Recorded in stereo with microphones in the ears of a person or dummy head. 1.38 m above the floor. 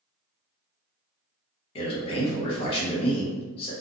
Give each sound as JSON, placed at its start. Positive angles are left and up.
{"t": 1.8, "sound": "a man speaking", "side_deg": 30, "distance_m": 1.0}